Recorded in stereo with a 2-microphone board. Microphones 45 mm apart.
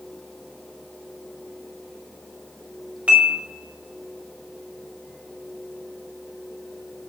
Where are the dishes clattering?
30° right (ahead or behind), 4.5 m.